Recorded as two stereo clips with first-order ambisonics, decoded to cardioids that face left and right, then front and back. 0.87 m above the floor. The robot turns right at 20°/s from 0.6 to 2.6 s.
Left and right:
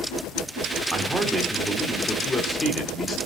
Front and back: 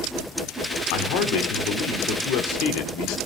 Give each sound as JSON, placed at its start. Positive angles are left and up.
{"t": 0.9, "sound": "a man speaking", "azimuth_deg": -10, "distance_m": 2.0}